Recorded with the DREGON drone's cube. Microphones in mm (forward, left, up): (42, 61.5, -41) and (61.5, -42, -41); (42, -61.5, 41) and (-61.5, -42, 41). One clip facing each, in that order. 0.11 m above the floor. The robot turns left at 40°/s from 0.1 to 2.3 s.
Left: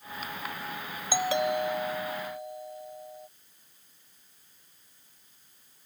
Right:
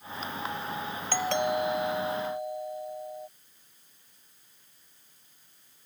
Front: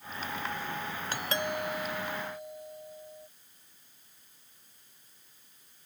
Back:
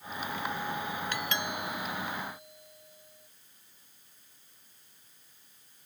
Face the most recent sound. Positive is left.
turn(degrees=-20)